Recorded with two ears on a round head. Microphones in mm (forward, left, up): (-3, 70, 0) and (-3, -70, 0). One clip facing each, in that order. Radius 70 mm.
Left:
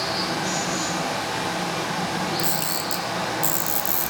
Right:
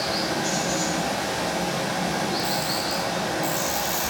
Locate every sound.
0.0 s running water: 35° right (ahead or behind), 10 m
2.4 s a camera shutter: 80° left, 2 m